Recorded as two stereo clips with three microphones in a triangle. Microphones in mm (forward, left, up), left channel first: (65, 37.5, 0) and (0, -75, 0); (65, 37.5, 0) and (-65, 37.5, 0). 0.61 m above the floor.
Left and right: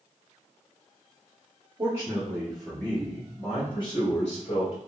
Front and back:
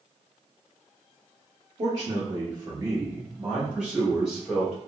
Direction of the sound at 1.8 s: 160° right.